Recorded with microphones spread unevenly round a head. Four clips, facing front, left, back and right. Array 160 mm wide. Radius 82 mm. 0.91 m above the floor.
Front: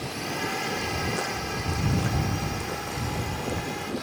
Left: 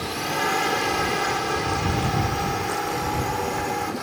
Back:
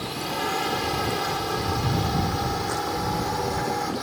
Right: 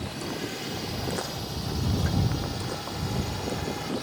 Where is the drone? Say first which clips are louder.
Left 8 dB, back 3 dB; 110° left; by 4.0 s 135° left.